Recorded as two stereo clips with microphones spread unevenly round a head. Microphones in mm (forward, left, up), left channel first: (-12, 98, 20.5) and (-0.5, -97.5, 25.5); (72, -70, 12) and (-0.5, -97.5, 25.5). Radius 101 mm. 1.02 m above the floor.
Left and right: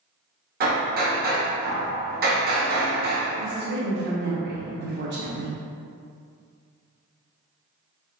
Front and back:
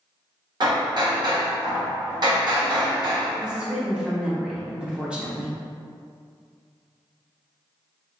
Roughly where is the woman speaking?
Right.